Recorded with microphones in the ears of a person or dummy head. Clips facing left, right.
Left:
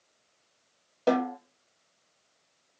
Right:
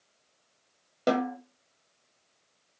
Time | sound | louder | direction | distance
1.1 | a snare drum | left 1 dB | 20° right (ahead or behind) | 1.0 m